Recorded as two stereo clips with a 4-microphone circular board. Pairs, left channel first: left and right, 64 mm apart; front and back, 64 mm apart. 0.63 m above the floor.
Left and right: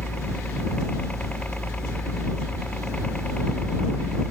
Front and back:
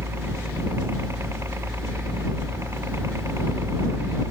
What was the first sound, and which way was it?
A helicopter, 150° left.